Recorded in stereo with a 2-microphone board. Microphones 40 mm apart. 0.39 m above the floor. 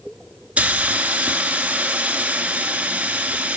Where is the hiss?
30° right (ahead or behind), 0.9 m.